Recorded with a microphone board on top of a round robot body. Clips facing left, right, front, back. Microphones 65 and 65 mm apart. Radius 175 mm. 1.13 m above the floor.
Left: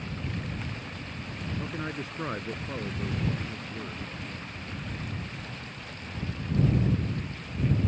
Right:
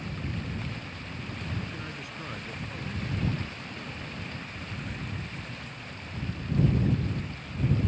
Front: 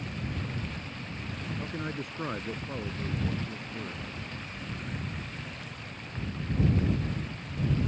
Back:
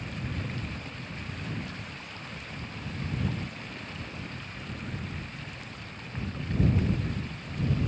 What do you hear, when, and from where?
1.6 s a man speaking: 35° left